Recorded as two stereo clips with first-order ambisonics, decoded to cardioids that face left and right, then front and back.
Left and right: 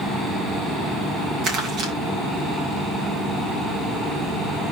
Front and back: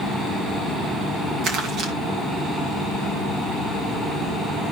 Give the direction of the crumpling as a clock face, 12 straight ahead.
5 o'clock.